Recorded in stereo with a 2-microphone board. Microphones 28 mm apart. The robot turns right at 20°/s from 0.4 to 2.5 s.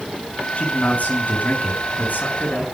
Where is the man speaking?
50° left, 6.5 m; by 2.7 s 90° left, 6.5 m.